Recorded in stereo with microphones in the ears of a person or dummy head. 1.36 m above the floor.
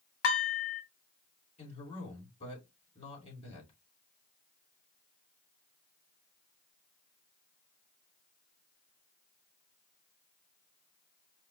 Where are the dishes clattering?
65° left (ahead or behind), 1.5 m.